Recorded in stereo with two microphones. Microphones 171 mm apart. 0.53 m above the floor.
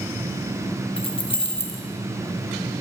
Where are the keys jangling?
30° left (ahead or behind), 0.6 m.